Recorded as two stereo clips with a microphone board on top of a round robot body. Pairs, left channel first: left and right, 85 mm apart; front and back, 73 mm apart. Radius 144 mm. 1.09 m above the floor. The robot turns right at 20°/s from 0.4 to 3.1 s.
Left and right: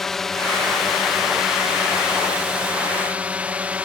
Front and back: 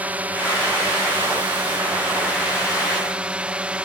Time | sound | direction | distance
0.0 | a drone | 170° left | ?